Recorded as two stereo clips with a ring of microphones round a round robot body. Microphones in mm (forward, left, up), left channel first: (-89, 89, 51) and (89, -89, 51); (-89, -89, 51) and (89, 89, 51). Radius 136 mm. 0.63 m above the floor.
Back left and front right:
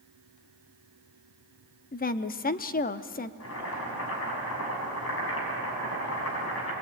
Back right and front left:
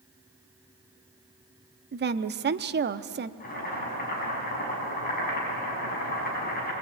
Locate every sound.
1.9 s a woman speaking: 85° left, 0.8 m
3.4 s boiling: 170° left, 6.5 m